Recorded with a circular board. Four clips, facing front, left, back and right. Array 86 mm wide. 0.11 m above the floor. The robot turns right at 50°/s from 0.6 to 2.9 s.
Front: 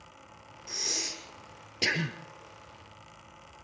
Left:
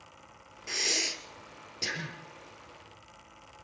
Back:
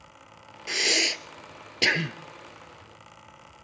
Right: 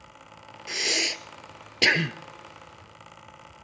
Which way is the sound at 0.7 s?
175° right.